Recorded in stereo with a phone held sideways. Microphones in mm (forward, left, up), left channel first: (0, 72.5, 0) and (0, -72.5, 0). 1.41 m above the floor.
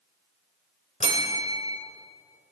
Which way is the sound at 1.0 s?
50° left (ahead or behind).